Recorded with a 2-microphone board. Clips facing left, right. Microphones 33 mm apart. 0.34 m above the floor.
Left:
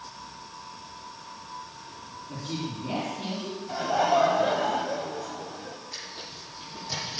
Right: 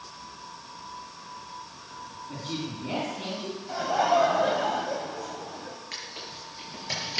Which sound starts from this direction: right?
Tearing paper, at 5.9 s.